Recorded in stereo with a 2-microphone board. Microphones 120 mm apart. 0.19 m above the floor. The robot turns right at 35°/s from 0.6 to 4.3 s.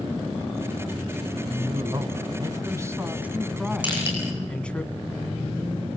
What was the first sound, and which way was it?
A man speaking, 85° right.